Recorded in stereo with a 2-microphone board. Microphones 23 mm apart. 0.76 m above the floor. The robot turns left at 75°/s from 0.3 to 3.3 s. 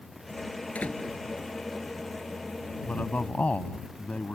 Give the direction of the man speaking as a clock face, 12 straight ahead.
9 o'clock.